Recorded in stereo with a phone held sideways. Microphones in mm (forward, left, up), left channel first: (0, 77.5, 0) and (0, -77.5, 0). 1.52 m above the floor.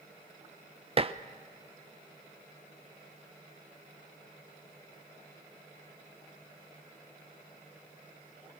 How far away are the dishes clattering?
About 0.6 m.